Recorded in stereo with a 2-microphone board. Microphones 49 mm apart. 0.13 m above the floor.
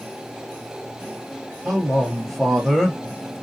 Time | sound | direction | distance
1.6 | a man speaking | 10° left (ahead or behind) | 1.9 m